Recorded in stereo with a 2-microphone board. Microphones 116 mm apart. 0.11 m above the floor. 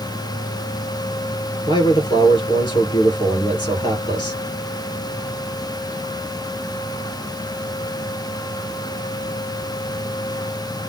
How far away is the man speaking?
About 2.5 m.